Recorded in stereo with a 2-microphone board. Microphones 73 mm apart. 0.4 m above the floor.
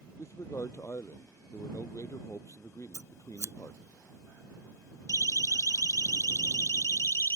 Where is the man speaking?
40° left (ahead or behind).